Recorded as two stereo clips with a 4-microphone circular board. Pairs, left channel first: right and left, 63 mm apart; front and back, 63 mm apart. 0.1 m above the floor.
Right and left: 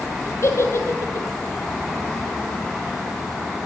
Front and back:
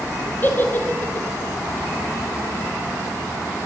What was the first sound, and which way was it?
A giggle, 55° right.